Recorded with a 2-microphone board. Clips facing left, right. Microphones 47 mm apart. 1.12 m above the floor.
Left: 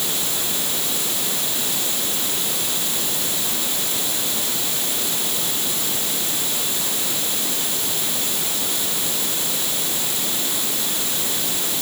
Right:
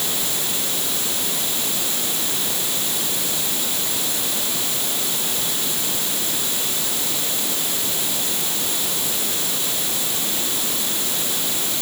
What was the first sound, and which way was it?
Only background noise.